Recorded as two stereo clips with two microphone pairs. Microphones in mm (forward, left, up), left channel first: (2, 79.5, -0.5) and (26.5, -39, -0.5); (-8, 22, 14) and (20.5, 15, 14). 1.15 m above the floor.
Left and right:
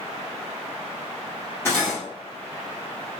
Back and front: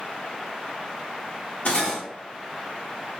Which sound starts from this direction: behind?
Cutlery clinking, at 1.6 s.